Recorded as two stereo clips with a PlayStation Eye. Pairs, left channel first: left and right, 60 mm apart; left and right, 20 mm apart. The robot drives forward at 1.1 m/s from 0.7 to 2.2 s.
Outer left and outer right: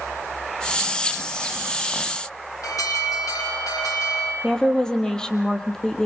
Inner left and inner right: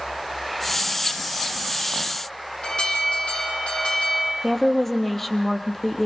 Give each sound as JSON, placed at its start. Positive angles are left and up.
{"t": 2.6, "sound": "an alarm", "side_deg": 70, "distance_m": 8.0}
{"t": 4.4, "sound": "a woman speaking", "side_deg": 15, "distance_m": 3.0}